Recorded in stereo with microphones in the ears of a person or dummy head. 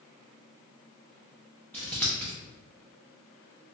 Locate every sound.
1.7 s scissors: 5° left (ahead or behind), 0.6 m